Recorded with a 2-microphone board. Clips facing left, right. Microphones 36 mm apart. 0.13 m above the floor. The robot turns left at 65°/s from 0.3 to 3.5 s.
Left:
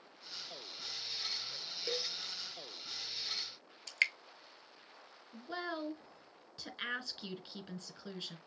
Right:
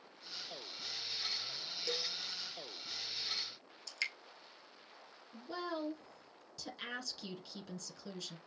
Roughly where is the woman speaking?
Left.